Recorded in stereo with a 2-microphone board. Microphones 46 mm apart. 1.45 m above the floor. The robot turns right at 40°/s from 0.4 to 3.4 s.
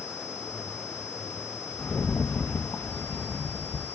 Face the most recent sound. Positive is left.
turn(degrees=90)